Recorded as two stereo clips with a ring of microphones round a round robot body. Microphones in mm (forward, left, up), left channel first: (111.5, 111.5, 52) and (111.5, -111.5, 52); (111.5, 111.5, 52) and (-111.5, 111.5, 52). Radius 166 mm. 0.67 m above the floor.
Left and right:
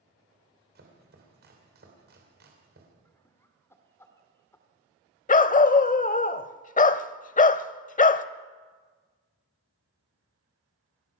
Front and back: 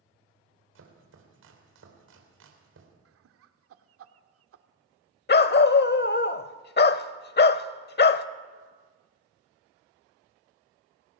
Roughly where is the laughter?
Behind.